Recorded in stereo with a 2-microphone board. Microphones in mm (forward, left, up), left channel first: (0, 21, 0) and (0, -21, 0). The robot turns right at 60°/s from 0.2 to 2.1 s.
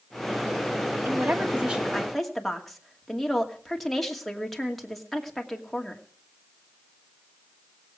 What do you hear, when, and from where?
1.1 s a woman speaking: 60° right, 2.5 m; by 6.0 s straight ahead, 2.5 m